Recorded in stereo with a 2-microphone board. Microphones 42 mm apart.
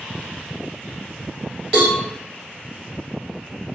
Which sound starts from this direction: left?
A cowbell, at 1.7 s.